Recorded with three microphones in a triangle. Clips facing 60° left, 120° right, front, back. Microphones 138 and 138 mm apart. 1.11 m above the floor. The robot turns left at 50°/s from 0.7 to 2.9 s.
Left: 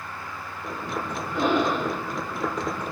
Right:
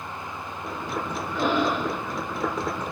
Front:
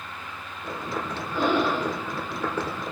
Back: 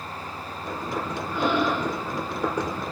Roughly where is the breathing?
Ahead left.